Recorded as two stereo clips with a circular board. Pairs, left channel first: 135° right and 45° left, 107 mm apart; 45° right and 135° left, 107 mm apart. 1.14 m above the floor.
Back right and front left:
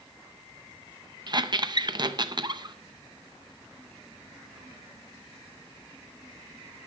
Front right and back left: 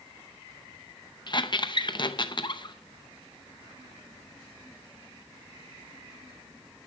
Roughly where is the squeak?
Ahead.